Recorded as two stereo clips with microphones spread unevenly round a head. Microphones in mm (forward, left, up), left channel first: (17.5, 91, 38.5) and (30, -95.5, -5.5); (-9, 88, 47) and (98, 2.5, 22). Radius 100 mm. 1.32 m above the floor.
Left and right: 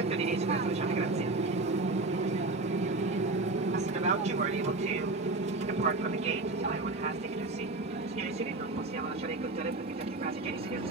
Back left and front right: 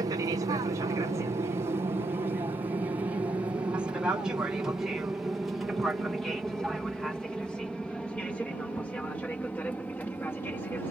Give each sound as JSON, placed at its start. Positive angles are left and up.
{"t": 0.0, "sound": "an aircraft", "azimuth_deg": -80}